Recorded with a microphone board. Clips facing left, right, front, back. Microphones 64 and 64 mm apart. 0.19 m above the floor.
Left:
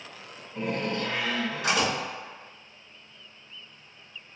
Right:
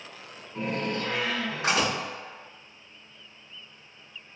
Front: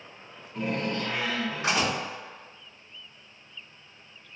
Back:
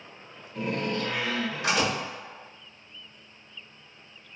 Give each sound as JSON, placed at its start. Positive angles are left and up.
{"t": 0.6, "sound": "a door slam", "azimuth_deg": -55, "distance_m": 1.6}